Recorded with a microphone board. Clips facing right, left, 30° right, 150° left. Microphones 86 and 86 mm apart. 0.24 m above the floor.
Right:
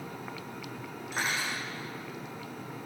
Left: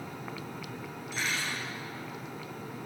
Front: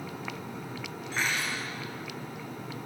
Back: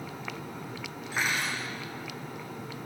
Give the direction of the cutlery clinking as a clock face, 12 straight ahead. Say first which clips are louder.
Right 2 dB, back 1 dB; 4 o'clock.